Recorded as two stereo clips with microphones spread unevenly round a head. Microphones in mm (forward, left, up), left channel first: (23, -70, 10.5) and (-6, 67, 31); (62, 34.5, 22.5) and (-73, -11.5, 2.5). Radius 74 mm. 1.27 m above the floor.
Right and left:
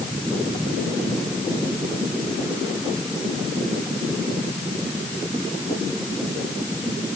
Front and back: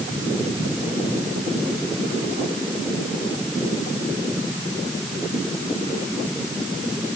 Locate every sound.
Only background noise.